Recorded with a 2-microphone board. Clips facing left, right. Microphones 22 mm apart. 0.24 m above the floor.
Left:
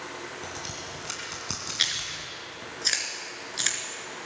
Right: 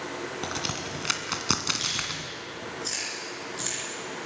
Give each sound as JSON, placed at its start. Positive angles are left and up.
{"t": 0.4, "sound": "a crack", "side_deg": -40, "distance_m": 2.5}
{"t": 1.8, "sound": "chewing", "side_deg": 45, "distance_m": 4.0}